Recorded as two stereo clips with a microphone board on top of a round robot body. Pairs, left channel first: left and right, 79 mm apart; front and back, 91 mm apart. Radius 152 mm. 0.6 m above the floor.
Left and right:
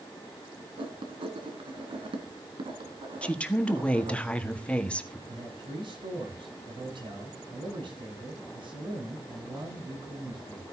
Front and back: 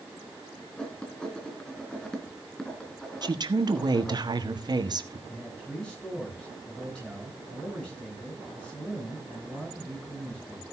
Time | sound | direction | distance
0.8 | writing | 85° right | 3 m
3.2 | a woman speaking | 160° left | 1.6 m
5.3 | a man speaking | 80° right | 9.5 m